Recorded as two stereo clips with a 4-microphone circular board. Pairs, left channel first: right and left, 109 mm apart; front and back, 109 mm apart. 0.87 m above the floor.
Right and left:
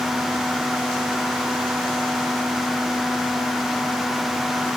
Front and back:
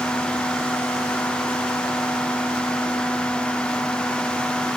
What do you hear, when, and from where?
Only background noise.